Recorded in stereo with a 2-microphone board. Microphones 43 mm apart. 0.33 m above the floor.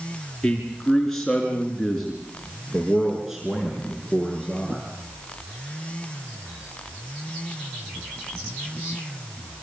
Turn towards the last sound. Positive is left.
turn(degrees=-20)  # may be behind; listen again after turning